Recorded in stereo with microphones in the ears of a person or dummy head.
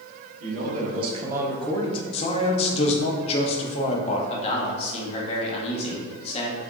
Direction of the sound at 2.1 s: 35° left (ahead or behind).